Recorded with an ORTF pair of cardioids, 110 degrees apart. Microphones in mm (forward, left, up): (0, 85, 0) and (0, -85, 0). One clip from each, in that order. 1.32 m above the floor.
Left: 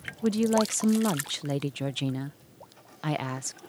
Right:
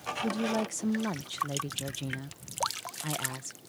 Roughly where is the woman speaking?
Ahead left.